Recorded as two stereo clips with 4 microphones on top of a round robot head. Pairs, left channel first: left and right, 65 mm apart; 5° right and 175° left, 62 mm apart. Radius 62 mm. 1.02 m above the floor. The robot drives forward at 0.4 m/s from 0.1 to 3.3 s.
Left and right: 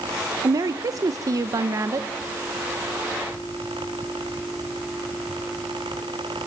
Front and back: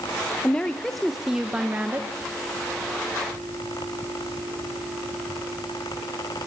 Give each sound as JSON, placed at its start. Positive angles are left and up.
{"t": 0.4, "sound": "a woman speaking", "azimuth_deg": -75, "distance_m": 0.8}